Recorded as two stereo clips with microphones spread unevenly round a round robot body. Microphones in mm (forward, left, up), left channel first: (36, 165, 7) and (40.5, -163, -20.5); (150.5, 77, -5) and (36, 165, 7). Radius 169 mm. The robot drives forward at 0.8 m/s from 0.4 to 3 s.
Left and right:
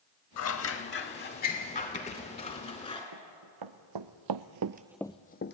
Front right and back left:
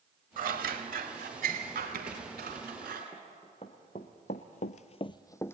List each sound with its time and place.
0.4 s scissors: 135° left, 1.1 m; by 3.0 s 165° left, 3 m
3.1 s running footsteps: 115° right, 2.5 m; by 5.5 s 40° left, 1.4 m